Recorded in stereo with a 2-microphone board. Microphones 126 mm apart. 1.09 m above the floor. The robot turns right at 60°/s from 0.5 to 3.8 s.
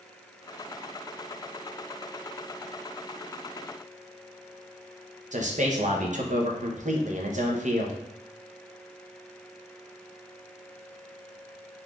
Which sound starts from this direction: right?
A man speaking, at 5.3 s.